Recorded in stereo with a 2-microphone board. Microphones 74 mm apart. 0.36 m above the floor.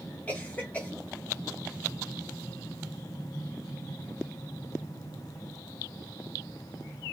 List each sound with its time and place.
0.3 s a cough: 20° left (ahead or behind), 1.4 m